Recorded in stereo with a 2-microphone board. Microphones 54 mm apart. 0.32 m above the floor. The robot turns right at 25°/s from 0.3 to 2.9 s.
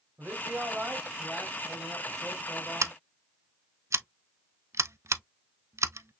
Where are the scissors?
65° right (ahead or behind), 0.6 m; by 6.2 s 60° right (ahead or behind), 0.6 m.